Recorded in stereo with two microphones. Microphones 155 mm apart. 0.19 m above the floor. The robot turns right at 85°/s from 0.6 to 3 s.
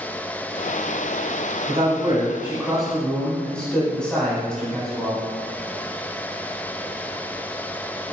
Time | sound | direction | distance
1.7 | a man speaking | 25° right (ahead or behind) | 1.0 m